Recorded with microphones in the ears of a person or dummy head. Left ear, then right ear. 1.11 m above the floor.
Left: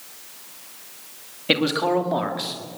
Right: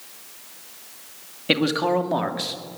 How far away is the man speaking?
About 1.9 m.